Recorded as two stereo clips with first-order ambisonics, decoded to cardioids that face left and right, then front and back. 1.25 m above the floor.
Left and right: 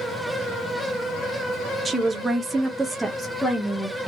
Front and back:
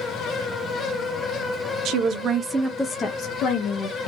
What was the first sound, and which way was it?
A woman speaking, 165° right.